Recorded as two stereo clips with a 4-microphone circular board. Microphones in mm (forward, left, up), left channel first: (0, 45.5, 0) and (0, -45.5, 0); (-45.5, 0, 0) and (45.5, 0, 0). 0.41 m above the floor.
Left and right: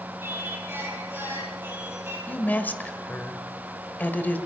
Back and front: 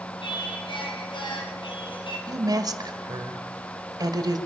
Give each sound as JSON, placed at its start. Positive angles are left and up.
{"t": 0.2, "sound": "singing", "azimuth_deg": -155, "distance_m": 5.0}
{"t": 2.3, "sound": "a woman speaking", "azimuth_deg": 25, "distance_m": 2.0}